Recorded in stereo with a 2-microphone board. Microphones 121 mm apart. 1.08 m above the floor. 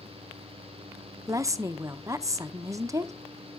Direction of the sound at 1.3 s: 25° right (ahead or behind).